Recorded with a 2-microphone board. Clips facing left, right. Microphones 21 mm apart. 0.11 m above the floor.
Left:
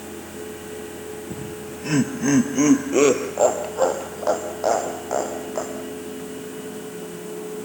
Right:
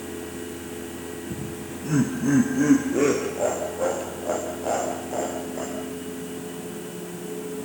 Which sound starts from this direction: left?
Laughter, at 1.3 s.